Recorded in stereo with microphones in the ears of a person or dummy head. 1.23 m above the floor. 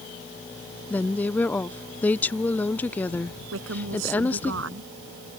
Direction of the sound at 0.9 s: 10° left (ahead or behind).